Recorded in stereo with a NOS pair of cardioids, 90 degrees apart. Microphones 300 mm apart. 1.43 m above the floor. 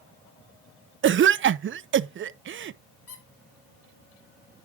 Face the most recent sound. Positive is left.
turn(degrees=50)